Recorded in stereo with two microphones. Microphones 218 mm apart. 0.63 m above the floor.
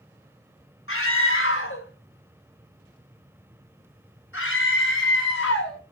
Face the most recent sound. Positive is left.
turn(degrees=60)  # may be behind; listen again after turning